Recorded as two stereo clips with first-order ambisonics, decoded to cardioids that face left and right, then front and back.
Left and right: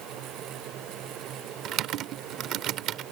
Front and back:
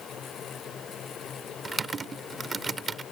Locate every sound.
1.6 s typing on a keyboard: 110° right